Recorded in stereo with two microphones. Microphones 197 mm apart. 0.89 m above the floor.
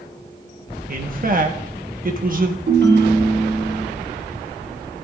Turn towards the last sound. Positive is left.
turn(degrees=-70)  # may be behind; listen again after turning